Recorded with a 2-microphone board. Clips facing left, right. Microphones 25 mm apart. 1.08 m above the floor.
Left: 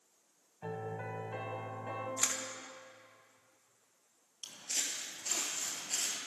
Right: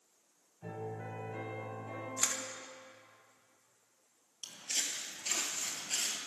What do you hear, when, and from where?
0.6 s a piano: 60° left (ahead or behind), 1.6 m
2.2 s a camera shutter: 20° left (ahead or behind), 0.8 m
4.4 s footsteps: 20° right (ahead or behind), 1.4 m; by 6.2 s 25° right (ahead or behind), 1.3 m